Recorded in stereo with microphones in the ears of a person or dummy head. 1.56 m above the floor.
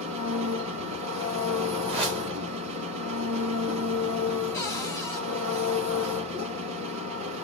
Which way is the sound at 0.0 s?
70° right (ahead or behind).